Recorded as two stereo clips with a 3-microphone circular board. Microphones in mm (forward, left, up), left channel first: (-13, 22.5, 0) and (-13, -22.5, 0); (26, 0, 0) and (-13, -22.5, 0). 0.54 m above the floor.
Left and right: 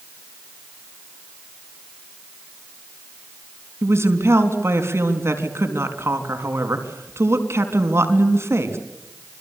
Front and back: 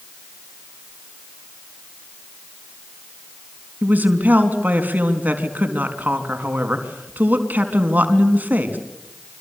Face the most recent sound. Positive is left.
turn(degrees=-100)